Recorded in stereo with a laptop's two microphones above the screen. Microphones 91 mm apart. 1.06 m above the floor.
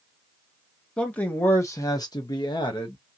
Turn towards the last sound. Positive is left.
turn(degrees=50)  # may be behind; listen again after turning